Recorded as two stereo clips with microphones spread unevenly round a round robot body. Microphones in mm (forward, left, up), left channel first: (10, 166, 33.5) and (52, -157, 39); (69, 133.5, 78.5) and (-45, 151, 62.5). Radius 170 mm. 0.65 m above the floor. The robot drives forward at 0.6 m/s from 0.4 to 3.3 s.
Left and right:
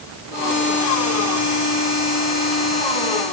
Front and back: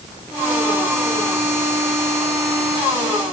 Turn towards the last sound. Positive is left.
No sound to turn to.